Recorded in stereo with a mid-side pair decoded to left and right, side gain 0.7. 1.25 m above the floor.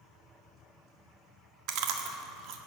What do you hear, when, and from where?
1.7 s chewing: 60° right, 1.6 m